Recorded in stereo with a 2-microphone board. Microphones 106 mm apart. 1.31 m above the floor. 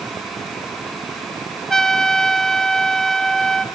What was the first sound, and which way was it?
A trumpet, 5° left (ahead or behind).